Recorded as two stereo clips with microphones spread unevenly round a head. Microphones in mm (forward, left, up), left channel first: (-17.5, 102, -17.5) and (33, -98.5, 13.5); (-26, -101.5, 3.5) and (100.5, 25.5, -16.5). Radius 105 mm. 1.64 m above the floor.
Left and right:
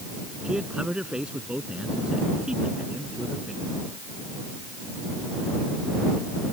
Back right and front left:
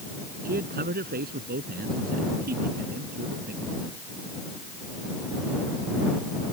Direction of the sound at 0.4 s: 10° left.